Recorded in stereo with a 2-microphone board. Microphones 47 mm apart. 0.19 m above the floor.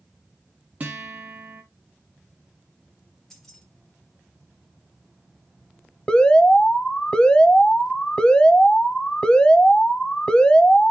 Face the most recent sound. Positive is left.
turn(degrees=20)  # may be behind; listen again after turning